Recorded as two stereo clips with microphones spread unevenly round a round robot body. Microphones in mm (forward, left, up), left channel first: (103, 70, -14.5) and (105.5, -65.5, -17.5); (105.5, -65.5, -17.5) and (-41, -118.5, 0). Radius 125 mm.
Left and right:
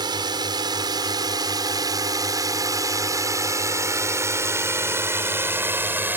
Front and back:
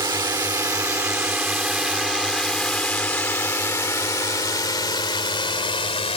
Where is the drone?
115° right; by 6.2 s 20° right.